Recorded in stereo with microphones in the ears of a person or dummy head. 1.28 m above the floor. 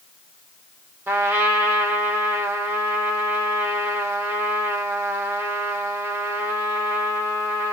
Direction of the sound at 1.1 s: 15° right (ahead or behind).